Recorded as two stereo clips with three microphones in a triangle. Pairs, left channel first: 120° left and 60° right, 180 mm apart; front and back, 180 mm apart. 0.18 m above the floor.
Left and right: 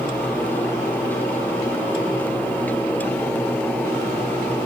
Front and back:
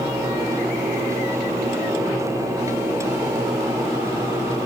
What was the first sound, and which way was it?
Only background noise.